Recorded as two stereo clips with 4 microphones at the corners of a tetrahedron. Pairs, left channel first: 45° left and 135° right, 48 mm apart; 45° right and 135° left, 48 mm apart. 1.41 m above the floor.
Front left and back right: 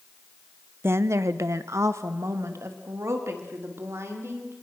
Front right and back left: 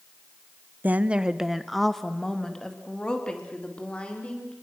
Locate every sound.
0.8 s a woman speaking: 175° right, 0.9 m; by 4.5 s 110° right, 4.5 m